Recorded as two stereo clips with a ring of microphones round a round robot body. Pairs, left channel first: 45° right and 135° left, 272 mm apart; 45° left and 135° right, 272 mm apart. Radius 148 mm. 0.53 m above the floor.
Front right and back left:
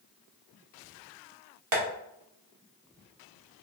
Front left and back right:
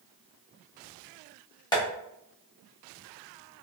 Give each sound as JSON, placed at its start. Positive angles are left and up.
{"t": 1.7, "sound": "tapping", "azimuth_deg": 120, "distance_m": 1.3}